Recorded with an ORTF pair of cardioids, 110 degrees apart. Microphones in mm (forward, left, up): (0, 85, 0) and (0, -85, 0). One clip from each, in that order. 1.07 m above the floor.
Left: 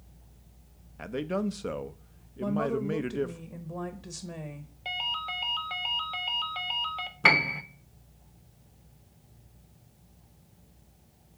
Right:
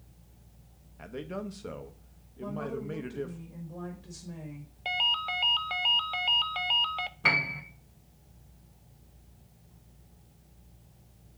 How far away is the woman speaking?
About 1.0 m.